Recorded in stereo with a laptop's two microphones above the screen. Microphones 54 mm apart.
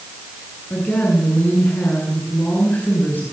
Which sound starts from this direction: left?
A woman speaking, at 0.7 s.